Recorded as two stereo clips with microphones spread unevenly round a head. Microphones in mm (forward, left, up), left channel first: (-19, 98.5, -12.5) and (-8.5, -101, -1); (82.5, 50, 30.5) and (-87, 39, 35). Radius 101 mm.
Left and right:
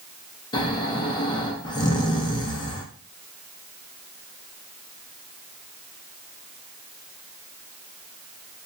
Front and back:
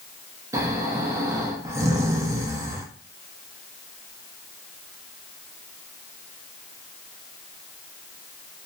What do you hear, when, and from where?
0.5 s snoring: 140° left, 0.5 m